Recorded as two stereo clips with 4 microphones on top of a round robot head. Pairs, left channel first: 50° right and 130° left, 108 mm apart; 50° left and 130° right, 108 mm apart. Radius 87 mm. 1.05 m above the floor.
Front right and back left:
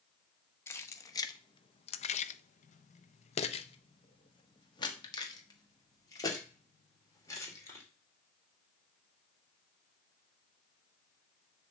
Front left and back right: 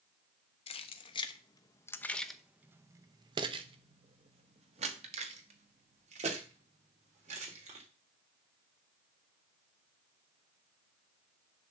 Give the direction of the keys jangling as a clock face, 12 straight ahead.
11 o'clock.